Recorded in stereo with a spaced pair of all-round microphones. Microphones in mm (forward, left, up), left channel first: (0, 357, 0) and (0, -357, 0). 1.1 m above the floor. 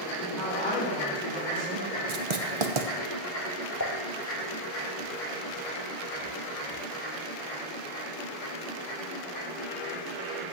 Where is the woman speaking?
85° right, 4 m.